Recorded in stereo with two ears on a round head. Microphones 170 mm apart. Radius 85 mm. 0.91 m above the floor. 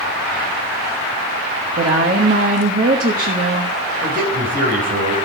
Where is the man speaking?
50° right (ahead or behind), 5 m.